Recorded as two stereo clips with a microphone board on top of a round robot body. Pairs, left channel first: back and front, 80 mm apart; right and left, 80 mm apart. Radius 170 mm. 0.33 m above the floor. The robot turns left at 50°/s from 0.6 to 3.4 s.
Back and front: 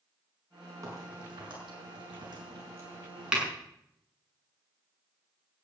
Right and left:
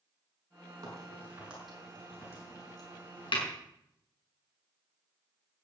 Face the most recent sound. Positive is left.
turn(degrees=-85)